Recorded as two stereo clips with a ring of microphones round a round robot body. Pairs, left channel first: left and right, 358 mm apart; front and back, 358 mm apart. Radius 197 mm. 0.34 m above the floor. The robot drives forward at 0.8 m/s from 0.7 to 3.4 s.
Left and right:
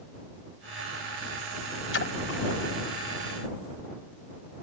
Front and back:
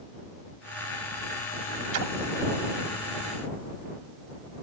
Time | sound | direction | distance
1.9 | a splash | 145° left | ?